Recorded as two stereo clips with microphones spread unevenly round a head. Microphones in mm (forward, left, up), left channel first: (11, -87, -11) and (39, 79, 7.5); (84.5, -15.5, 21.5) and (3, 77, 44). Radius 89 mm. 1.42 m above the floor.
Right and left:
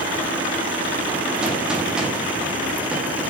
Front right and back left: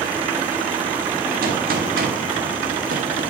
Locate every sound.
1.4 s a gunshot: 165° left, 0.9 m